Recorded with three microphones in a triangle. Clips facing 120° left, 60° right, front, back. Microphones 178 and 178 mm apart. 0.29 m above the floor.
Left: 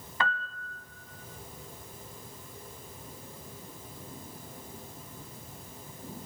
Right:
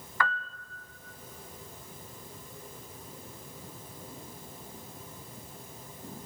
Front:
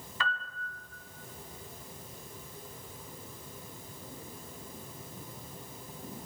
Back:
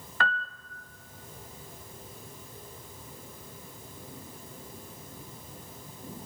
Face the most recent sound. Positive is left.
turn(degrees=-175)